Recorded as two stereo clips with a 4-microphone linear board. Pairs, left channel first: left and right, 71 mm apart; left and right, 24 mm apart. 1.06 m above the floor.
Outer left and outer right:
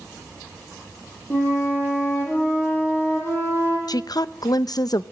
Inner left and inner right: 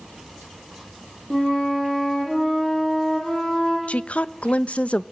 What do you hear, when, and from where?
1.3 s a flute: 35° left (ahead or behind), 6.5 m
3.9 s a woman speaking: 65° left (ahead or behind), 0.7 m